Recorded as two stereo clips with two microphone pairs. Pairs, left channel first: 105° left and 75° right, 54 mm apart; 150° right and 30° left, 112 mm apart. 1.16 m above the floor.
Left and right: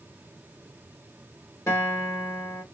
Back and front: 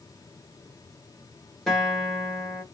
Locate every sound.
1.7 s a guitar: 120° left, 1.5 m